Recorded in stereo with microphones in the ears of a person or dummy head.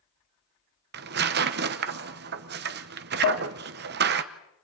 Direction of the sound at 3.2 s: 70° left (ahead or behind).